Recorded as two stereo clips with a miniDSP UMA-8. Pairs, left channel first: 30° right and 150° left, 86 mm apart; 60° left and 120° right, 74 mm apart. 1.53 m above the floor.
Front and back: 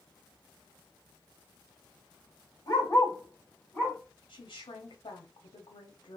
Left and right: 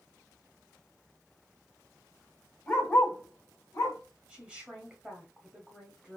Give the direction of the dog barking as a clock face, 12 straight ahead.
12 o'clock.